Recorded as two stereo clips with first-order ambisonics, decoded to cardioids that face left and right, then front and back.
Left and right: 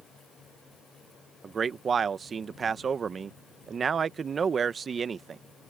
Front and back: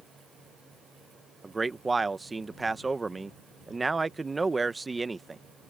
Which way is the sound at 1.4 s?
125° right.